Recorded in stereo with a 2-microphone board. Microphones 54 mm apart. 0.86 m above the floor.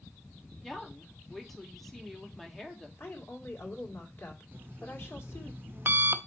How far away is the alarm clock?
About 0.6 m.